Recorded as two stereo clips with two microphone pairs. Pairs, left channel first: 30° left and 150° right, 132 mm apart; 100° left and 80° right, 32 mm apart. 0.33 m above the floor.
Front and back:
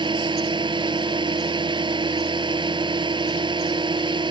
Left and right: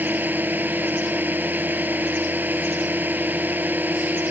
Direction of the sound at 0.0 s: 95° right.